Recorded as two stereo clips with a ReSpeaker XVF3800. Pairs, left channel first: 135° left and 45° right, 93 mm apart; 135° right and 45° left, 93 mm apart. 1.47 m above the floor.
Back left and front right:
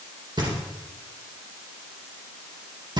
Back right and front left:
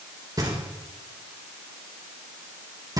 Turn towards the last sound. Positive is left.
turn(degrees=-5)